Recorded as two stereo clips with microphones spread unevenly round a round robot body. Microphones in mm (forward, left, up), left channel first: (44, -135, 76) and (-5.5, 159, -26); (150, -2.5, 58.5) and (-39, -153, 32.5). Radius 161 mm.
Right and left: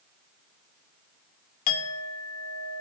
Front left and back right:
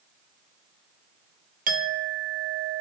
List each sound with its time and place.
1.7 s a clink: 105° right, 0.7 m